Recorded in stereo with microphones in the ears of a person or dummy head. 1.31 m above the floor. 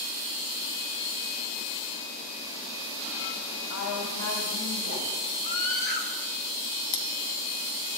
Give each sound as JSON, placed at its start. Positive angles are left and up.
{"t": 3.7, "sound": "a woman speaking", "side_deg": 70, "distance_m": 6.0}
{"t": 5.4, "sound": "a scream", "side_deg": 50, "distance_m": 4.0}
{"t": 6.9, "sound": "cutlery clinking", "side_deg": 35, "distance_m": 0.6}